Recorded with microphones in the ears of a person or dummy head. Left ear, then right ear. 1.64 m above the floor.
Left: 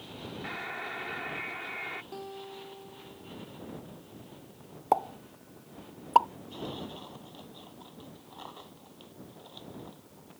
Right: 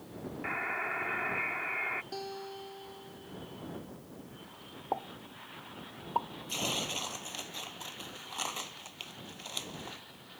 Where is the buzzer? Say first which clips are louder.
Right 4 dB; 20° right (ahead or behind).